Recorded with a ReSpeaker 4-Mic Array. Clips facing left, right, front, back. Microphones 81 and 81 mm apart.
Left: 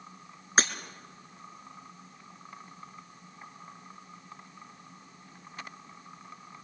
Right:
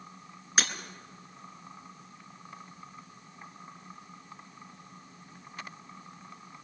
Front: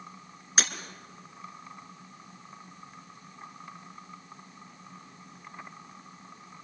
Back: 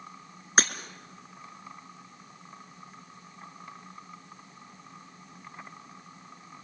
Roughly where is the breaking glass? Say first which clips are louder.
Left 4 dB, back 5 dB; behind left.